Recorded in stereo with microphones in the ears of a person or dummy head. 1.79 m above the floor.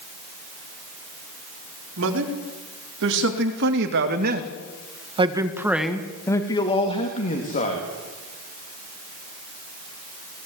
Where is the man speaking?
80° right, 4 m; by 7.9 s 45° left (ahead or behind), 3 m.